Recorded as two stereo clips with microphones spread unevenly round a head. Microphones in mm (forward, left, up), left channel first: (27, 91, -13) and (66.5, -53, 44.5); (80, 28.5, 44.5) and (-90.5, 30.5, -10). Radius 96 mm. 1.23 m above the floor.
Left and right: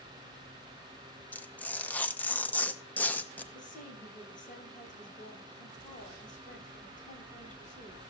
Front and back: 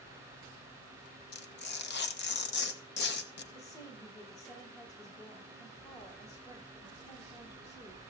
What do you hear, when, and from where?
1.3 s tearing paper: 30° left, 1.1 m
3.5 s a woman speaking: 65° left, 8.5 m